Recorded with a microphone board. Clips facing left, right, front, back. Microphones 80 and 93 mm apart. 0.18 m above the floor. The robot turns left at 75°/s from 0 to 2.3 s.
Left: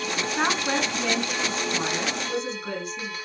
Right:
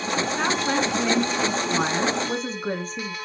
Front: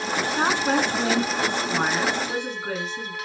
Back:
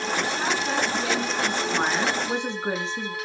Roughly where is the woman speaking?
Ahead.